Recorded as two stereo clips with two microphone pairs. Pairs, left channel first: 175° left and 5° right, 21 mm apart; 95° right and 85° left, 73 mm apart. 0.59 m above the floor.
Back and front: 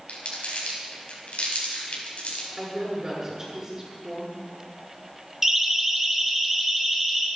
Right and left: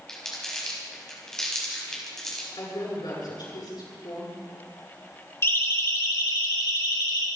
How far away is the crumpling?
About 5 m.